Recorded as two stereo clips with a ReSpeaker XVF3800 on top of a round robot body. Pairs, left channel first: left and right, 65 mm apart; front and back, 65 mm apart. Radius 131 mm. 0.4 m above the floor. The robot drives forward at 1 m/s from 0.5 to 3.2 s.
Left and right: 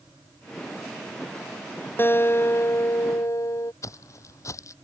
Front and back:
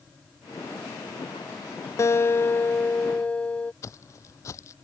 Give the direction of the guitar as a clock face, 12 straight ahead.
11 o'clock.